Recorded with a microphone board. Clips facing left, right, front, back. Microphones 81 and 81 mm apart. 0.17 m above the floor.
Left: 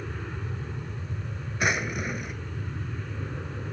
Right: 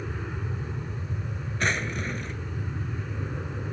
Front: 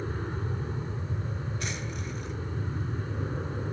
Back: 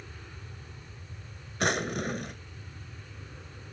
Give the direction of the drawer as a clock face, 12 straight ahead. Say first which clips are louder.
Left 1 dB, back 7 dB; 6 o'clock.